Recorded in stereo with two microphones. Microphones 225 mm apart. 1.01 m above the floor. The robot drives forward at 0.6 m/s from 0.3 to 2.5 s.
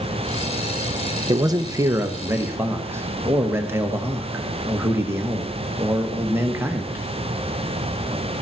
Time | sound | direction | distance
1.3 | a man speaking | 15° right (ahead or behind) | 0.7 m